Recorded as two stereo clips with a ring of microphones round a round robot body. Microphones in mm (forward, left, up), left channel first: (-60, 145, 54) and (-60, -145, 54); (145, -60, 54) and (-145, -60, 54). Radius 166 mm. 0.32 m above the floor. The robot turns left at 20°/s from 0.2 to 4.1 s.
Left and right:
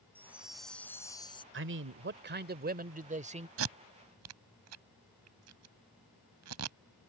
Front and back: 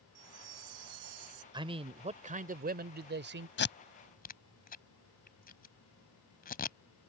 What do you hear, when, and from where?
0.1 s a chime: 175° right; by 1.4 s 165° left
1.5 s a man speaking: 110° right; by 3.5 s 150° right
3.6 s tape being pulled: 50° right; by 6.8 s 60° right